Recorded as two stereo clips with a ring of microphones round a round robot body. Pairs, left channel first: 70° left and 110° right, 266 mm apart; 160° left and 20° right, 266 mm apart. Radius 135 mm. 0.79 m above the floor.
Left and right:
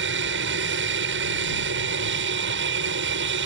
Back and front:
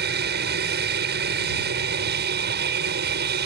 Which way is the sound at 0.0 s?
70° right.